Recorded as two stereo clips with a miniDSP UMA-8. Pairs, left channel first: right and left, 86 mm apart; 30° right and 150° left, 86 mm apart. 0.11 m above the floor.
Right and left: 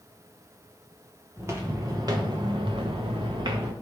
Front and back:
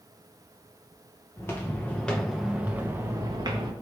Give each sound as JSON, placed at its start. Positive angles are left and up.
{"t": 1.4, "sound": "footsteps", "azimuth_deg": 30, "distance_m": 1.4}